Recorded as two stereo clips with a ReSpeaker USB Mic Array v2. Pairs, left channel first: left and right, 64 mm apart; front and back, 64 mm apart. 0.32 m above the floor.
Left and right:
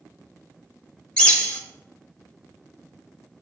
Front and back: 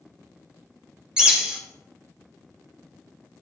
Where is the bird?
130° left, 1.3 m.